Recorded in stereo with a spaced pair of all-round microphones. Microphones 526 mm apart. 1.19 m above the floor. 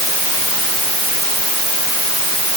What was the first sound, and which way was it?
Only background noise.